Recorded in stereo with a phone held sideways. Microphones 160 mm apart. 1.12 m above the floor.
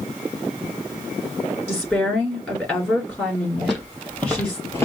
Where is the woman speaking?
10° left (ahead or behind), 3.5 m.